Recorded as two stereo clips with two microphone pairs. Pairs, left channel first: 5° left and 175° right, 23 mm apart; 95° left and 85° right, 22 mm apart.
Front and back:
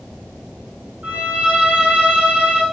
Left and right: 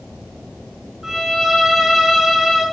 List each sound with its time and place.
1.0 s a violin: 155° right, 8 m